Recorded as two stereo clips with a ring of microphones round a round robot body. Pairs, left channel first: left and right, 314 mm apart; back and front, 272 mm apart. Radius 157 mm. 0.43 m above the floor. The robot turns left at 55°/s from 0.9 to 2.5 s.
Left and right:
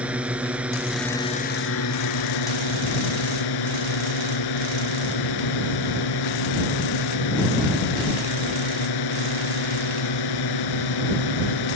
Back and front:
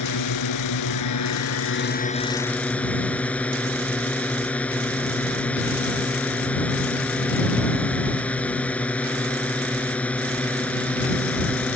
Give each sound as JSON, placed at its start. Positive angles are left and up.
{"t": 0.0, "sound": "a drone", "azimuth_deg": -175}